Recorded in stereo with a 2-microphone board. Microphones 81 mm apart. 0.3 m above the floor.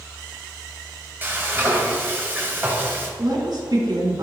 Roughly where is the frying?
Right.